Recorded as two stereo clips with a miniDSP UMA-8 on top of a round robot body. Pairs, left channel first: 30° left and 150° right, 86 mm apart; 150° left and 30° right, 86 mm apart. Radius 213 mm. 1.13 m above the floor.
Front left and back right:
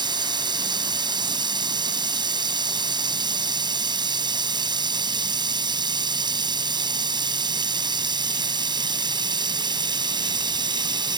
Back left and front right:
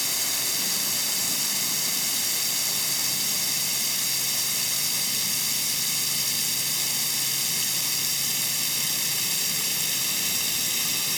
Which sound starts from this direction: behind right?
Running water, at 0.0 s.